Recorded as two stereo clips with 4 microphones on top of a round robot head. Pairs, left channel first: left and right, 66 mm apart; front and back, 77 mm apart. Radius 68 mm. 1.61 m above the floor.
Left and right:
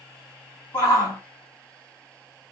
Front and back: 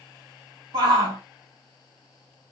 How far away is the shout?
About 1.8 m.